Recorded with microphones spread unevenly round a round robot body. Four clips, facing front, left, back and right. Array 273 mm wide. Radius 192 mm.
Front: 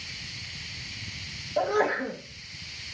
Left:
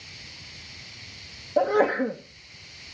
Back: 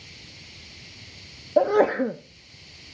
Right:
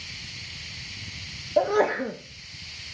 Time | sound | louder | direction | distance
1.6 | a sneeze | left 1 dB, back 6 dB | 175° left | 0.7 m